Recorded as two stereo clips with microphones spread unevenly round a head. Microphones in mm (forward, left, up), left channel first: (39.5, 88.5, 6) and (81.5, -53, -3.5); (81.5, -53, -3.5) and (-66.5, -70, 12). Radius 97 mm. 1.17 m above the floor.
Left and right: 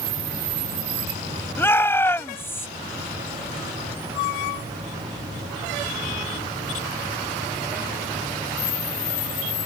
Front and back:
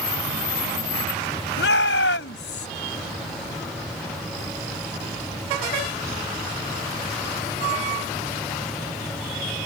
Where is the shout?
30° left.